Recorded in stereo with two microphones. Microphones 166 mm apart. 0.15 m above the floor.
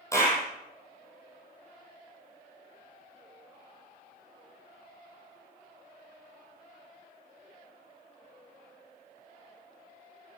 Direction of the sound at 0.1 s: 20° left (ahead or behind).